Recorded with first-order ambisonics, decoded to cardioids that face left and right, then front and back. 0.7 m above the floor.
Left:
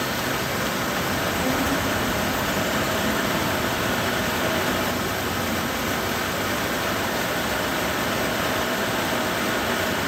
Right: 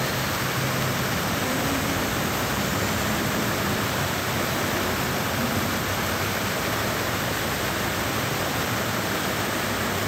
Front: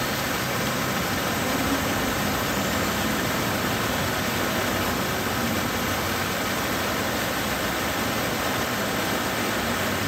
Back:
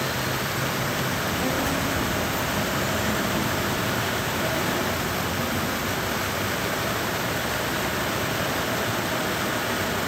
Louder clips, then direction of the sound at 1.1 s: Left 2 dB, even; 115° left.